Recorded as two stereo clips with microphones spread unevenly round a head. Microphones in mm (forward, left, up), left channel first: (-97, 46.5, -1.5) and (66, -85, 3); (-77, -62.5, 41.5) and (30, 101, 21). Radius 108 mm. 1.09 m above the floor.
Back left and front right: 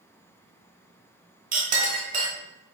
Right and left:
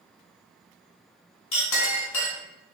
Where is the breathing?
I don't hear breathing.